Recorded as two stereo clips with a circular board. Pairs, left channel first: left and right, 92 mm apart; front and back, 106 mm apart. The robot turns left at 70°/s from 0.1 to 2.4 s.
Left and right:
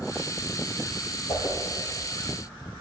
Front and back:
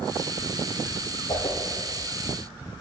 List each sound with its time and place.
1.3 s a whoosh: 45° left, 2.5 m; by 1.6 s 30° left, 2.5 m